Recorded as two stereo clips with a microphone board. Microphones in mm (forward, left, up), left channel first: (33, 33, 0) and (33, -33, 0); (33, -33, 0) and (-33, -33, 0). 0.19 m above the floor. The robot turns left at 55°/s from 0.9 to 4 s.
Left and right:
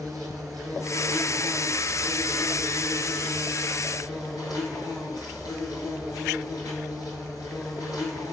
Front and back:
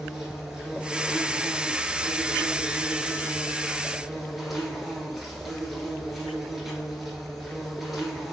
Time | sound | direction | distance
0.0 | an insect | 100° right | 1.0 m